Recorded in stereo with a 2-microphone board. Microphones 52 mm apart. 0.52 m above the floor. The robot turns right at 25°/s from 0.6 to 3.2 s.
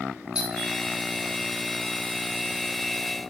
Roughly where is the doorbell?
Centre.